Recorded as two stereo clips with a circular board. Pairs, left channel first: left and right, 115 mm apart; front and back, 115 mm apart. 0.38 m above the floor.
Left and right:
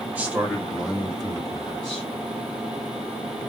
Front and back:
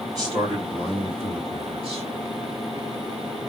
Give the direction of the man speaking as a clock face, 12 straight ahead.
5 o'clock.